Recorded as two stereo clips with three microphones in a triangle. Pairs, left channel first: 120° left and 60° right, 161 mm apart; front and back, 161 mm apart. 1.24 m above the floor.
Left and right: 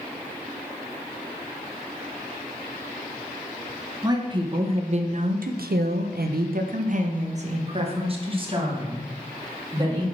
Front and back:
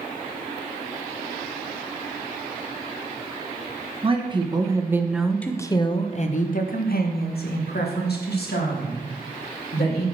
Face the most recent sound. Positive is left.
turn(degrees=5)